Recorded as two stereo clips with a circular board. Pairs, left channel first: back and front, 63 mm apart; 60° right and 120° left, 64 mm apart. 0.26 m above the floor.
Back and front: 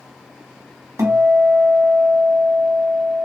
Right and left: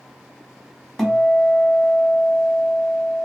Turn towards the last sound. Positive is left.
turn(degrees=25)